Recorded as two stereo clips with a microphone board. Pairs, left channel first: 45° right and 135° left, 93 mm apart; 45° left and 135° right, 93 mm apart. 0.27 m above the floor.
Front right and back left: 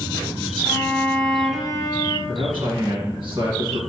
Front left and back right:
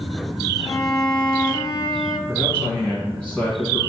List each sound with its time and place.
0.7 s a violin: 40° left, 1.2 m
2.3 s a man speaking: 120° left, 2 m